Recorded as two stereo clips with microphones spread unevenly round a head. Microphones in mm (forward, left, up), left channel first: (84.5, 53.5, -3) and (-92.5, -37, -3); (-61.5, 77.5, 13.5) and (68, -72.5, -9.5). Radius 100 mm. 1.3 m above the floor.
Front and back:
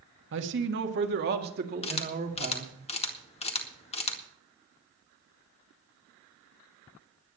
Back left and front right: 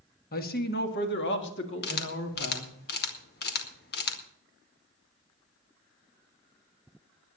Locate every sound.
0.3 s a man speaking: straight behind, 1.9 m; by 2.7 s 155° left, 3 m
1.8 s a camera shutter: 90° left, 2.0 m